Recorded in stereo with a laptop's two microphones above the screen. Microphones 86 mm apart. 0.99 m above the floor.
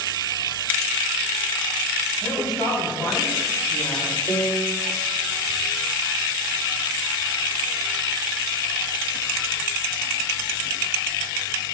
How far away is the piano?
About 3 m.